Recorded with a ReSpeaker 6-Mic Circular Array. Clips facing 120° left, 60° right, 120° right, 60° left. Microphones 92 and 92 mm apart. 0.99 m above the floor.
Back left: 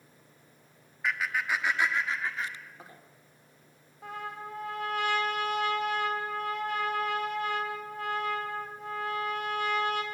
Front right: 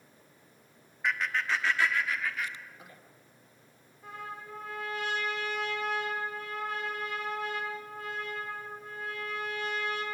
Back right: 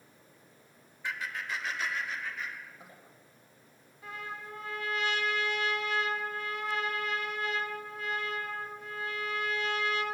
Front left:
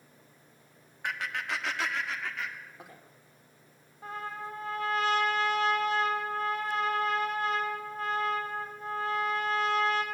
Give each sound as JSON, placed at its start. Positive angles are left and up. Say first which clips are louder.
{"t": 1.0, "sound": "laughter", "louder": "even, front left 3 dB", "azimuth_deg": 30, "distance_m": 1.5}
{"t": 4.0, "sound": "a trumpet", "louder": "back left 3 dB, front left 4 dB", "azimuth_deg": 105, "distance_m": 2.5}